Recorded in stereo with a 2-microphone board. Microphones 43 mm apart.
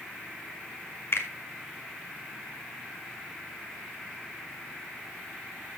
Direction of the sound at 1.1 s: 60° left (ahead or behind).